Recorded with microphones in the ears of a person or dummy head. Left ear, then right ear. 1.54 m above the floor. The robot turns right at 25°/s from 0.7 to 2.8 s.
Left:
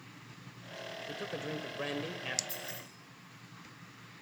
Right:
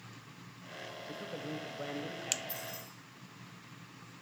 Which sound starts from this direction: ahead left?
A man speaking, at 1.1 s.